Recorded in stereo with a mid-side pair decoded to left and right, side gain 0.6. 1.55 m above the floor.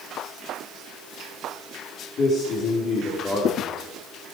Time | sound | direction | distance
2.2 | a man speaking | 55° left | 4.5 m